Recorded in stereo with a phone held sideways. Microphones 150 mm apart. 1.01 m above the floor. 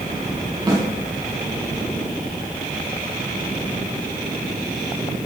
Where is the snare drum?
25° right (ahead or behind), 5.5 m.